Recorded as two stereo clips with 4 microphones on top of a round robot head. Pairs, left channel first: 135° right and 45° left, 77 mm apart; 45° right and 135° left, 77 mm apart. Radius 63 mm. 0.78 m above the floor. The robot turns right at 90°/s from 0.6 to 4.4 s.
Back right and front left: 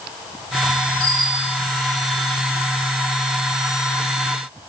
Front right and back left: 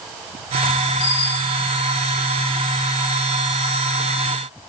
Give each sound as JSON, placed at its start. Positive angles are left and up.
{"t": 1.0, "sound": "a bicycle bell", "azimuth_deg": -60, "distance_m": 7.0}